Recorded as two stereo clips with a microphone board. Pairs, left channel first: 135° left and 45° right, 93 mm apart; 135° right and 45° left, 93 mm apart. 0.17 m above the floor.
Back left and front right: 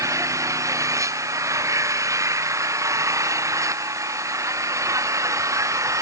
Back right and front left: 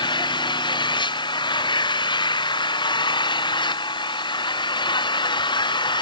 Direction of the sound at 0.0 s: 100° right.